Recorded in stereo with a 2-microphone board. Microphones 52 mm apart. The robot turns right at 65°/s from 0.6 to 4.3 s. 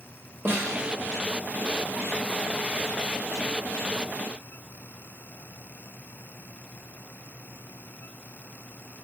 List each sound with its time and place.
0.5 s a snare drum: 40° right (ahead or behind), 1.1 m; by 0.8 s 30° right (ahead or behind), 1.1 m